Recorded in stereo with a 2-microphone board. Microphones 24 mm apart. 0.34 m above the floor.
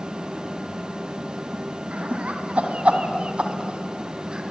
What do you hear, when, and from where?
1.9 s laughter: 65° right (ahead or behind), 2.5 m; by 4.4 s 35° right (ahead or behind), 3 m